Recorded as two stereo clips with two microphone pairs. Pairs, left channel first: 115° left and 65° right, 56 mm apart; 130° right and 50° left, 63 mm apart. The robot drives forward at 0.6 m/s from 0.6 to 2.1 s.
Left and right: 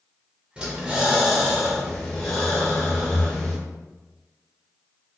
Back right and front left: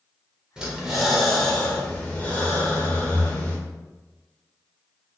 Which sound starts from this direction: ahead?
Breathing, at 0.6 s.